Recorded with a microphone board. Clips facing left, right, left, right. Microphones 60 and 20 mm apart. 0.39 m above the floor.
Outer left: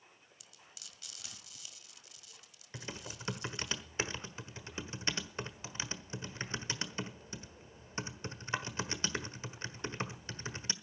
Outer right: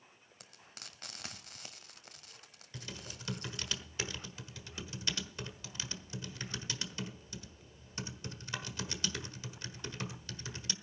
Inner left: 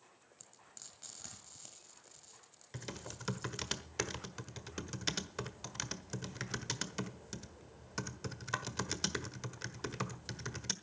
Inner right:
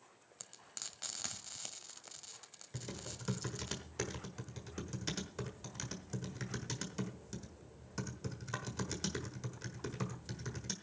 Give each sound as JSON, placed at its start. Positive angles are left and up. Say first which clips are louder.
{"t": 0.4, "sound": "frying", "louder": "outer right 6 dB, inner right 9 dB", "side_deg": -45, "distance_m": 1.4}
{"t": 2.7, "sound": "typing on a keyboard", "louder": "outer left 2 dB, inner left 1 dB", "side_deg": 30, "distance_m": 1.3}